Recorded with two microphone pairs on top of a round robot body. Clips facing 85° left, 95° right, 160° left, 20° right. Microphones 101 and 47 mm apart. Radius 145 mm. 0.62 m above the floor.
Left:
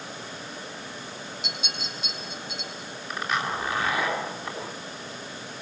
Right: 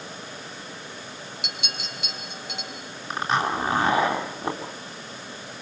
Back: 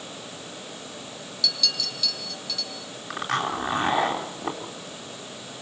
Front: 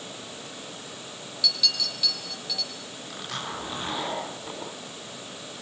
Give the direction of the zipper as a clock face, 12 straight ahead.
5 o'clock.